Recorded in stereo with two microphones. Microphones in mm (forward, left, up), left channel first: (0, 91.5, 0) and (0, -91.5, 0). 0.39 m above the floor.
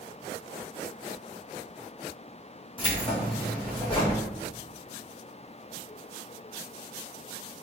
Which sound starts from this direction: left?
Keys jangling, at 2.8 s.